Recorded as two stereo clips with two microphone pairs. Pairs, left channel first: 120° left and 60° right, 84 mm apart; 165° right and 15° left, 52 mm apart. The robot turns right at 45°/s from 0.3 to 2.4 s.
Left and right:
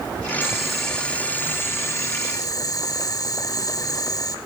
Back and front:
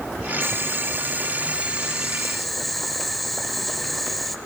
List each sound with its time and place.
0.4 s boiling: 15° left, 0.5 m; by 4.4 s 105° left, 0.5 m